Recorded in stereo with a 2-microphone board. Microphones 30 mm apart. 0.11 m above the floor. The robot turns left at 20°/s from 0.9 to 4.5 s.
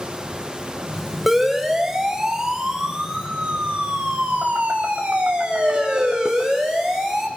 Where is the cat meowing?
I don't hear a cat meowing.